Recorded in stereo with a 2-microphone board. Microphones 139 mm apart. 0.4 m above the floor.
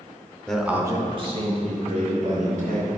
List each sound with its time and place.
0.5 s a man speaking: 5° left (ahead or behind), 0.8 m; by 2.9 s 70° right (ahead or behind), 2.5 m